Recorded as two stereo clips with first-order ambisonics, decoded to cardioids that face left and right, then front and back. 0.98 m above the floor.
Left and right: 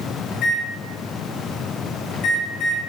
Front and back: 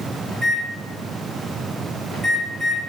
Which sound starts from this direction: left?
A microwave, at 0.3 s.